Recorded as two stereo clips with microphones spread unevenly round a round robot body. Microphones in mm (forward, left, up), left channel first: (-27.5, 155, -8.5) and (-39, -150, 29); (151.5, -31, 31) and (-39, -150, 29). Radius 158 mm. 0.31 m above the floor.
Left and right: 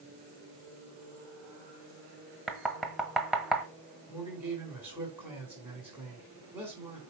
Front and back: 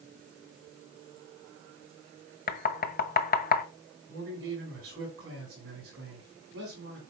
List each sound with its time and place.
2.5 s knocking: 5° left, 1.0 m
4.1 s a man speaking: straight behind, 3.5 m